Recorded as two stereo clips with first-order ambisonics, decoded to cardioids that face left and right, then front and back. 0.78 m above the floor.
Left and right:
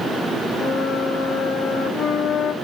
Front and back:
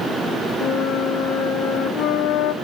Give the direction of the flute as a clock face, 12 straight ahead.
11 o'clock.